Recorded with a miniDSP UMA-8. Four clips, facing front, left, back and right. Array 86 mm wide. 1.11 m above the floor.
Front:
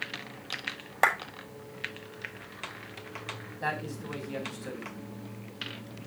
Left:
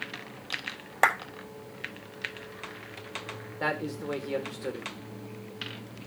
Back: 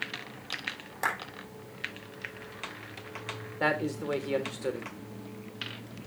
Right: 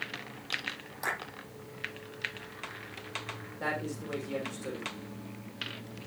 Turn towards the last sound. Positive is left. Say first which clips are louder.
# left 4 dB, back 5 dB
turn(degrees=155)